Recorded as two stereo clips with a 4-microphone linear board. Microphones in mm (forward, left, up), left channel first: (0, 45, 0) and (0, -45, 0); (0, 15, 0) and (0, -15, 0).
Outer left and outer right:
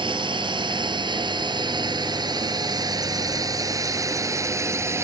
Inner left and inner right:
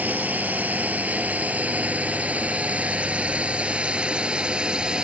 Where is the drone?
60° right (ahead or behind); by 5.0 s 30° right (ahead or behind).